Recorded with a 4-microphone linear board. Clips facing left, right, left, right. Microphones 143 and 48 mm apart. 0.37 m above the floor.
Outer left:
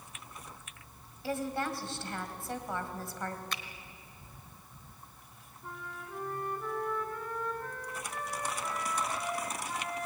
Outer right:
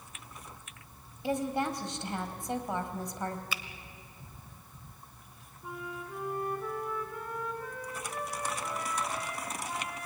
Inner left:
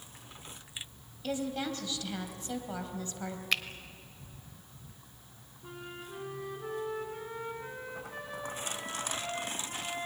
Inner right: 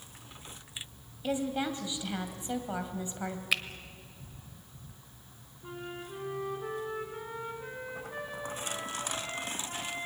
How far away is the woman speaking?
About 2.5 m.